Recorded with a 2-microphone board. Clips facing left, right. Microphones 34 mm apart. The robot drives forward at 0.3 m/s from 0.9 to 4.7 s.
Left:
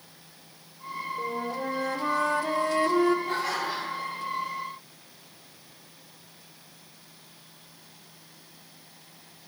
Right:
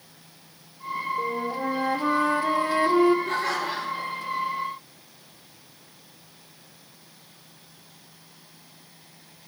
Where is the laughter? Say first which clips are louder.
Right 2 dB; 75° right (ahead or behind), 7 m.